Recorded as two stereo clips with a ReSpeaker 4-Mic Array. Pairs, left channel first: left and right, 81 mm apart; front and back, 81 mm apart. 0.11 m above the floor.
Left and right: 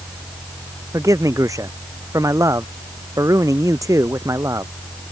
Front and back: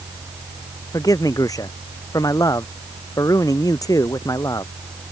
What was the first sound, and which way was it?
A man speaking, 45° right.